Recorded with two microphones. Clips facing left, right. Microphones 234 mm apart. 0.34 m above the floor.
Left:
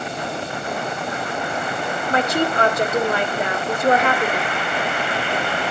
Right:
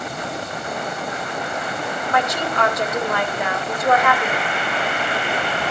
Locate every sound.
2.1 s a woman speaking: 30° left (ahead or behind), 1.3 m